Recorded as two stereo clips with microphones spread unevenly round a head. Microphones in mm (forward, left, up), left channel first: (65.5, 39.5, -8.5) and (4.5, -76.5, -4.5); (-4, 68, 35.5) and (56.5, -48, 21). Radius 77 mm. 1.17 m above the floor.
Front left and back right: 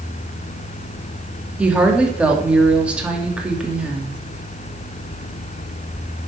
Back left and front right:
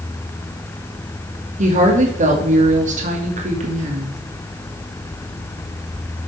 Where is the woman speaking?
35° right, 2.5 m.